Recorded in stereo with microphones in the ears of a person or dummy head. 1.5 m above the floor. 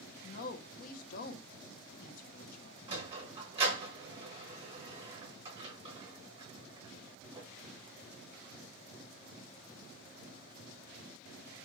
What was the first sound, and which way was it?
A woman speaking, 45° left (ahead or behind).